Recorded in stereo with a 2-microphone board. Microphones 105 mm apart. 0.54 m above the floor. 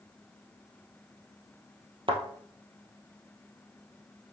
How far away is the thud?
About 1.8 m.